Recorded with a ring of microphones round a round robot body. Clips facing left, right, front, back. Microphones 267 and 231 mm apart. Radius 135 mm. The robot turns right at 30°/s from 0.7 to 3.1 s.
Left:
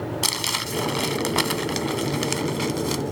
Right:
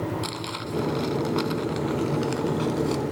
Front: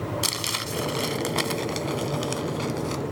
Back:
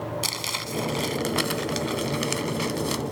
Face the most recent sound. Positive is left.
turn(degrees=150)